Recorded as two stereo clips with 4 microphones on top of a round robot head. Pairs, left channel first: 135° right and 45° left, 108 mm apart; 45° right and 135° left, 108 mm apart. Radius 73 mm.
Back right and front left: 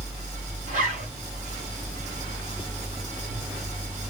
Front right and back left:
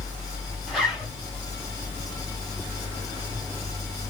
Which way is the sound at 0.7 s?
50° left.